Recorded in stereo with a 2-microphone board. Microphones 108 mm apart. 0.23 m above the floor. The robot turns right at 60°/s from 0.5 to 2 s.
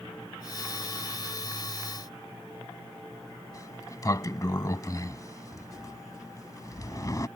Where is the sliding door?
35° left (ahead or behind).